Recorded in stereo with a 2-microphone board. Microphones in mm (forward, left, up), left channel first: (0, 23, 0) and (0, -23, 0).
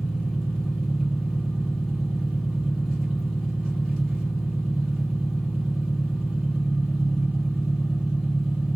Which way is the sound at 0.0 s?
Centre (ahead or behind).